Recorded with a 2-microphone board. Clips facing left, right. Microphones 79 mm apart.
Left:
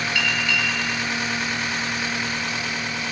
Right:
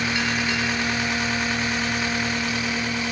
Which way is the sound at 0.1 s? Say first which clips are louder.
Even; 30° right (ahead or behind).